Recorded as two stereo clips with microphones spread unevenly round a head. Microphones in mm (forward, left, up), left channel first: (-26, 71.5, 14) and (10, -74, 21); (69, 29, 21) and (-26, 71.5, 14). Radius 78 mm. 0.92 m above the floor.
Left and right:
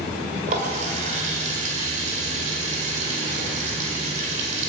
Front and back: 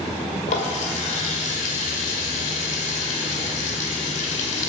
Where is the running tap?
30° right, 2 m.